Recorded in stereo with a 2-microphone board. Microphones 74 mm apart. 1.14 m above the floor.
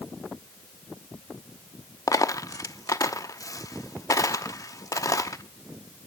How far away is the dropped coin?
About 0.8 m.